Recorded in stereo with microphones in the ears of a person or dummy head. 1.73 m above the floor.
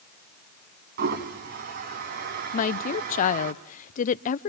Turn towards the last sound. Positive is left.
turn(degrees=45)  # may be behind; listen again after turning